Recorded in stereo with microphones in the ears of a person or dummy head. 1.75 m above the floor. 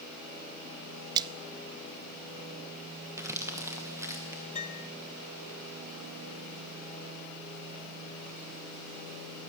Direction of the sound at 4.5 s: 40° left (ahead or behind).